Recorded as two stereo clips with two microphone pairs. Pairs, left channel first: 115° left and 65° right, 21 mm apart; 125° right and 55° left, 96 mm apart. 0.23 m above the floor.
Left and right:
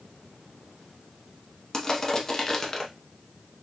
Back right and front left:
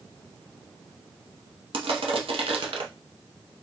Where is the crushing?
55° left, 0.7 m.